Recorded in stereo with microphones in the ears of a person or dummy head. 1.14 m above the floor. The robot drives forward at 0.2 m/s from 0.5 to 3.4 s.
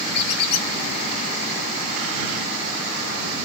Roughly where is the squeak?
Left.